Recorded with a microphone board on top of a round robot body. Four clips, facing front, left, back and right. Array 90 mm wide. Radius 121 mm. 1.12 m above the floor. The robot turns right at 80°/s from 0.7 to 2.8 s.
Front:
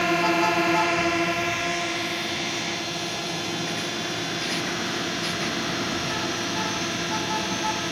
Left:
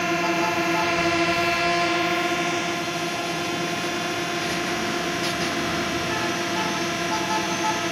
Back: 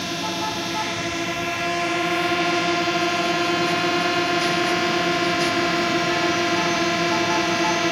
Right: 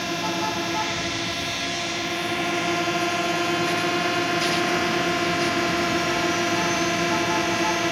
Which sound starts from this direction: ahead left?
A drone, at 0.0 s.